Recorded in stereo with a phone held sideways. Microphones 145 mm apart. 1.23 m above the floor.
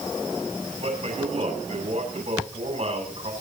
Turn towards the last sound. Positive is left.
turn(degrees=-50)  # may be behind; listen again after turning